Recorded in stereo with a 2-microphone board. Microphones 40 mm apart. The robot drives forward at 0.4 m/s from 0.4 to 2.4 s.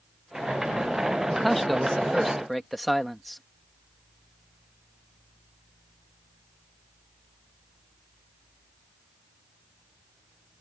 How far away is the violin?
I don't hear a violin.